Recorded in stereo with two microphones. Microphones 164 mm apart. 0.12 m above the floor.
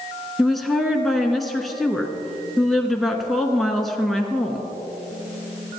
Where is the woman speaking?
Centre (ahead or behind), 1.1 m.